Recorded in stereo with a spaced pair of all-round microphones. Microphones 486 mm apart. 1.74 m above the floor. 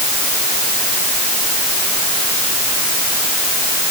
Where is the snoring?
I don't hear snoring.